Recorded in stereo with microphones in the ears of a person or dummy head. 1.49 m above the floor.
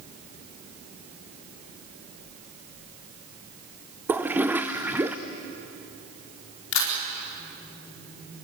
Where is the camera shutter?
85° left, 4 m.